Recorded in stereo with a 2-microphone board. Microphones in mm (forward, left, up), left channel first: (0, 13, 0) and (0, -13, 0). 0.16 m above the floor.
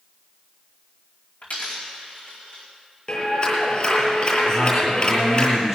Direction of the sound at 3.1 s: 40° left (ahead or behind).